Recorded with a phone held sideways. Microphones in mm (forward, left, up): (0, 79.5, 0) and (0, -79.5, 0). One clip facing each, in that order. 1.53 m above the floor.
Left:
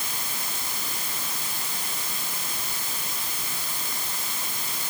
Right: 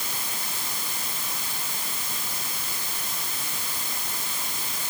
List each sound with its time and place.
Only background noise.